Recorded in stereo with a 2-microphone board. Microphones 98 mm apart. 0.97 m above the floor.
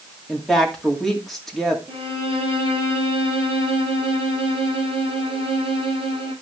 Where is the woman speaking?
5° left (ahead or behind), 2.5 m.